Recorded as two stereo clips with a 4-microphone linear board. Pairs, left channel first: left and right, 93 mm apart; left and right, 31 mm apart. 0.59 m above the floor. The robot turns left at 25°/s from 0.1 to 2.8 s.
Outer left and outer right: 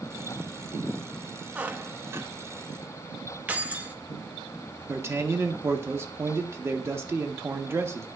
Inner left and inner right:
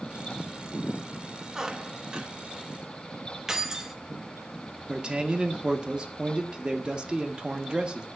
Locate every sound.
1.6 s a squeak: 15° right (ahead or behind), 0.5 m; by 2.3 s 30° right (ahead or behind), 0.5 m
3.5 s keys jangling: 15° right (ahead or behind), 0.6 m
4.9 s a man speaking: 25° right (ahead or behind), 0.9 m